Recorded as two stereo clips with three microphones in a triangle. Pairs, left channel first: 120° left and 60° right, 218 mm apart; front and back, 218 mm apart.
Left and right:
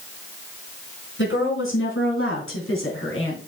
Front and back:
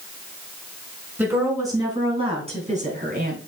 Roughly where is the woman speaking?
Left.